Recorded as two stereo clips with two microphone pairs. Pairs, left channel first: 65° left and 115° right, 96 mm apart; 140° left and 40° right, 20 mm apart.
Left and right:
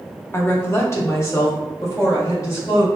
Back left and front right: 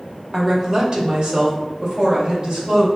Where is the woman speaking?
15° left, 0.9 m; by 2.9 s 10° left, 2.5 m.